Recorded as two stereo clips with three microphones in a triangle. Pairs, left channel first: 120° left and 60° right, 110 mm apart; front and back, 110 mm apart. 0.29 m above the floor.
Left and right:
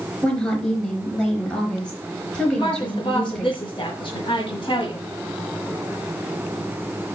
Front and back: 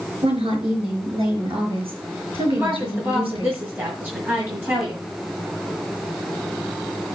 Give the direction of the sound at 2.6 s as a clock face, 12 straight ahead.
8 o'clock.